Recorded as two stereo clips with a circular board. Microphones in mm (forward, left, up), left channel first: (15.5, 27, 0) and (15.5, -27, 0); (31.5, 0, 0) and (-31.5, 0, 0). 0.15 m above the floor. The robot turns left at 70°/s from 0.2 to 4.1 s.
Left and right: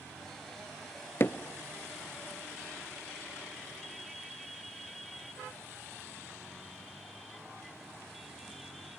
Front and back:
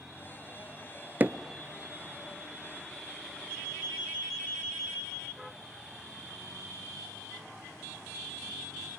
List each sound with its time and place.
1.2 s hammering: 125° left, 0.7 m; by 1.4 s 115° left, 0.7 m